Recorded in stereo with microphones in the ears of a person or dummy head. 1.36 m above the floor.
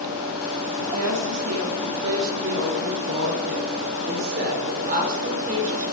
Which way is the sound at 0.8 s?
75° right (ahead or behind).